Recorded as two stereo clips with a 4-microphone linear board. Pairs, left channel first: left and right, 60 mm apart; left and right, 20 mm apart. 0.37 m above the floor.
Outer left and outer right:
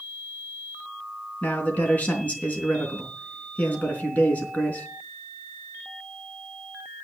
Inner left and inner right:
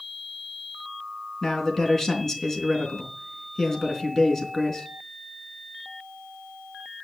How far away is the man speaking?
About 3.5 m.